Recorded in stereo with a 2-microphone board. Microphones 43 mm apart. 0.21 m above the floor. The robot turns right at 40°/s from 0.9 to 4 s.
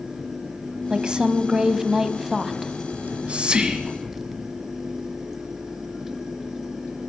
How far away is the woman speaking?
About 1.1 m.